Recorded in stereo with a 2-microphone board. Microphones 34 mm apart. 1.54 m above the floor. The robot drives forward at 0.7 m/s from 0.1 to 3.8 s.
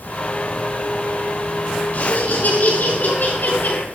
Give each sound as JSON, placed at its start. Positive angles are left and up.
{"t": 1.9, "sound": "laughter", "side_deg": 55, "distance_m": 5.5}